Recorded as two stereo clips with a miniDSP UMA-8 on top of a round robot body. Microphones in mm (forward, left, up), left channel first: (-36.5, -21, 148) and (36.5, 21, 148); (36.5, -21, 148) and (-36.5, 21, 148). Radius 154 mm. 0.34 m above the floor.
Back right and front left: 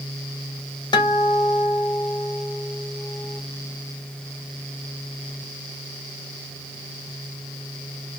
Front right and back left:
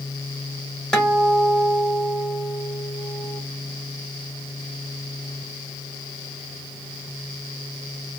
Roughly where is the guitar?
Behind right.